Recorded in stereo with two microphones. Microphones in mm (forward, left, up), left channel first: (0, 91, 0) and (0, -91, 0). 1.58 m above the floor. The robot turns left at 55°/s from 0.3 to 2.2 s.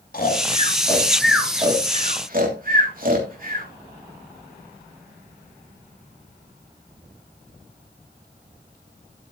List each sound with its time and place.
0.1 s snoring: 50° left (ahead or behind), 3 m; by 3.7 s 50° right (ahead or behind), 3 m